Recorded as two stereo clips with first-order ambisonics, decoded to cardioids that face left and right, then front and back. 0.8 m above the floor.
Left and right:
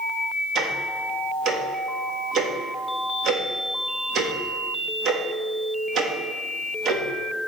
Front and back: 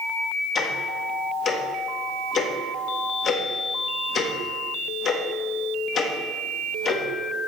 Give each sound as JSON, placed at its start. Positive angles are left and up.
{"t": 0.6, "sound": "ticking", "azimuth_deg": -50, "distance_m": 1.0}